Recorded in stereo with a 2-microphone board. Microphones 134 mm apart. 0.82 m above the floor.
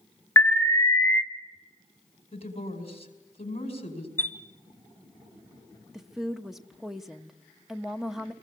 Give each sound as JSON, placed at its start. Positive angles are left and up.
{"t": 0.4, "sound": "an alarm", "side_deg": 20, "distance_m": 1.0}
{"t": 2.3, "sound": "a woman speaking", "side_deg": 45, "distance_m": 5.0}
{"t": 4.2, "sound": "a chime", "side_deg": 15, "distance_m": 1.6}
{"t": 5.9, "sound": "a woman speaking", "side_deg": 0, "distance_m": 0.9}